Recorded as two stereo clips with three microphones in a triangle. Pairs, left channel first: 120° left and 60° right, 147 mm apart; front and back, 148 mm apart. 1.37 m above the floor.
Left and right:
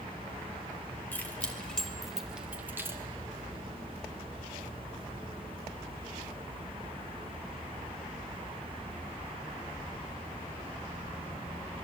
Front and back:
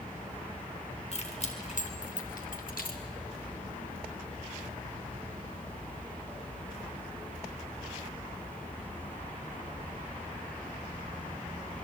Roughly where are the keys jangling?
Ahead left.